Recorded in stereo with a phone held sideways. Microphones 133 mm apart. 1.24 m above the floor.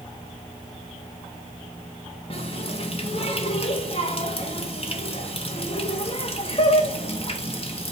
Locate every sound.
2.3 s a running tap: 45° left (ahead or behind), 1.3 m